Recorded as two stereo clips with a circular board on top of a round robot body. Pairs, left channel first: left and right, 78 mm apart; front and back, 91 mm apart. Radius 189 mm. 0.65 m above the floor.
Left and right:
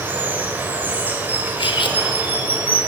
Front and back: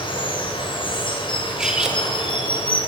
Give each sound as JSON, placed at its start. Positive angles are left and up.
{"t": 0.0, "sound": "running water", "azimuth_deg": -25, "distance_m": 4.0}
{"t": 1.6, "sound": "cutlery clinking", "azimuth_deg": 95, "distance_m": 2.0}